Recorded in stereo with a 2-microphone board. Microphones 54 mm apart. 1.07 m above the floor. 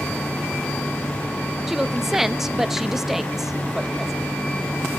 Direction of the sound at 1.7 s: 5° right (ahead or behind).